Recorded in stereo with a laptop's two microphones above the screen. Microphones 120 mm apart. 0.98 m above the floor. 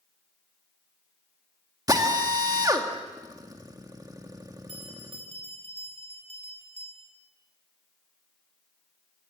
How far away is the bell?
About 5 m.